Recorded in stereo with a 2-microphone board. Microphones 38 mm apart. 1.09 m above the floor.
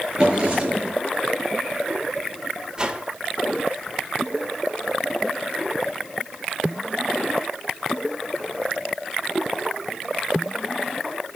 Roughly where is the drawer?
Right.